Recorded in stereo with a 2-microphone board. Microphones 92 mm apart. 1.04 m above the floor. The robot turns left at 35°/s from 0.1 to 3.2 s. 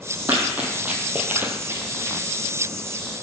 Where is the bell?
No bell in this recording.